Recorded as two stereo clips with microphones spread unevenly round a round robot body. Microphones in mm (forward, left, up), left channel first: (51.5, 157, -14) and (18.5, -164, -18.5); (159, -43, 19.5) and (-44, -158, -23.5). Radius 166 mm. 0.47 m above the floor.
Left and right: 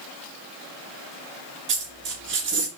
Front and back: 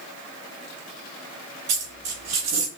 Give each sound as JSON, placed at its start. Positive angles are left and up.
{"t": 1.7, "sound": "a dropped coin", "azimuth_deg": -155, "distance_m": 2.5}